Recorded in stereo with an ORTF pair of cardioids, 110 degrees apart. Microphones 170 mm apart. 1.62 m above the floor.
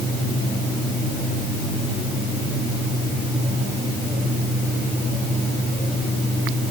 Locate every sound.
Only background noise.